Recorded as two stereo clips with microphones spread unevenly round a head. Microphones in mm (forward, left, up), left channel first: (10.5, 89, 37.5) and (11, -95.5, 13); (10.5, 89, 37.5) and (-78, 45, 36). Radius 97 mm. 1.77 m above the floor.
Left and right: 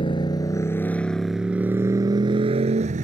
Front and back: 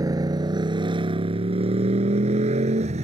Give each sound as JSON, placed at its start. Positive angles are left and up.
{"t": 0.0, "sound": "a motorcycle", "azimuth_deg": 155}